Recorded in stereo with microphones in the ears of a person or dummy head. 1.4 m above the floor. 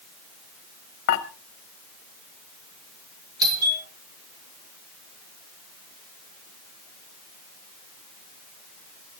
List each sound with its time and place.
1.1 s dishes clattering: 60° left (ahead or behind), 1.2 m
3.4 s a doorbell: 25° right (ahead or behind), 6.5 m